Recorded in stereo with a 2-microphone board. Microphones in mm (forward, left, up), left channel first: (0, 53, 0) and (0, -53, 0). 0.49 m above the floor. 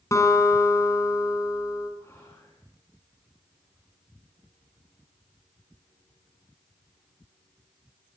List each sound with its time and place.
0.1 s a guitar: 30° left (ahead or behind), 4.5 m
2.0 s whispering: 25° left (ahead or behind), 5 m